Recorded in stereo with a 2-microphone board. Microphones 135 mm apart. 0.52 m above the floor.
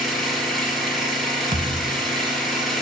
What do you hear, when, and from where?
0.0 s an engine running: centre (ahead or behind), 4 m
1.5 s a thud: 85° right, 1.4 m